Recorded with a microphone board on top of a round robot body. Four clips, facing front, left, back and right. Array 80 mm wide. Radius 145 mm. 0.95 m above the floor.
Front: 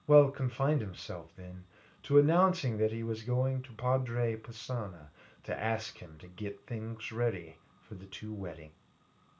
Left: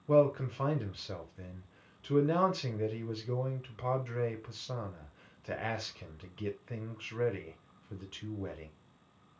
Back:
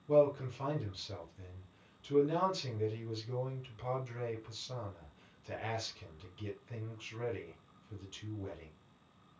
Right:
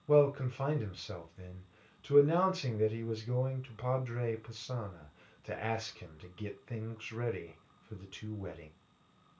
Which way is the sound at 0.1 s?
Straight ahead.